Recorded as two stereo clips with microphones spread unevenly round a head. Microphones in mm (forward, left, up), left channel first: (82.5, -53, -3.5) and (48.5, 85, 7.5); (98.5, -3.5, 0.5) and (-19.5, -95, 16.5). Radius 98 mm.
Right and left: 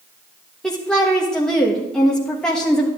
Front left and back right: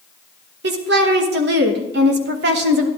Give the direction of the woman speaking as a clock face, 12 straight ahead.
5 o'clock.